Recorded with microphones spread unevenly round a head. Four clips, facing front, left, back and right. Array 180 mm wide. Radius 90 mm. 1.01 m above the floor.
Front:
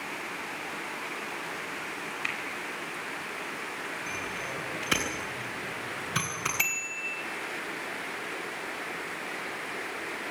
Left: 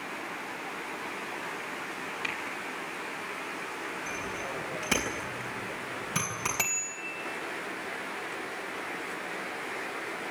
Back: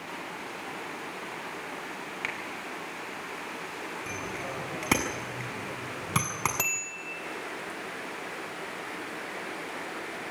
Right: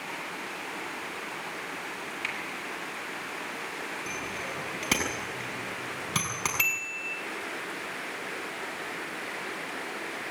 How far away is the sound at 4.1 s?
About 6.5 m.